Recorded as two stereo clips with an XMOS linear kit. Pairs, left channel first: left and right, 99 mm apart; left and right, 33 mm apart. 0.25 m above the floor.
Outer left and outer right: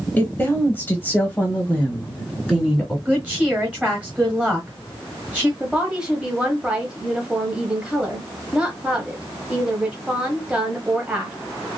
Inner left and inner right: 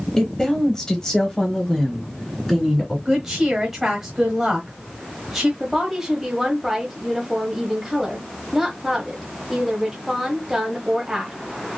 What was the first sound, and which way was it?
A woman speaking, 20° left (ahead or behind).